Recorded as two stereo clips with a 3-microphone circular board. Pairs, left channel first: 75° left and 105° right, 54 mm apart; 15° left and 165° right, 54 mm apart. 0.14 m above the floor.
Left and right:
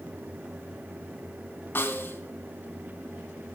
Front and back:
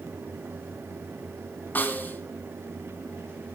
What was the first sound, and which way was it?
A snare drum, 50° left.